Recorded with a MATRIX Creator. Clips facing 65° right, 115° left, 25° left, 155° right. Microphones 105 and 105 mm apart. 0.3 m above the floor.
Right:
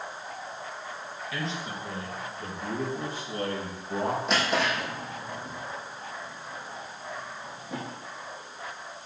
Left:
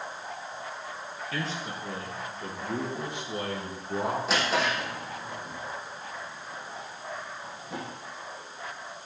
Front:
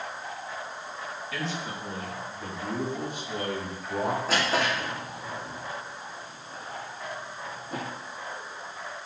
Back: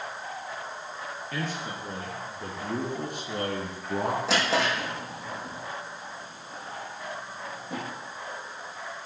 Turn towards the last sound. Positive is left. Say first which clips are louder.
# even, back 1 dB
turn(degrees=-160)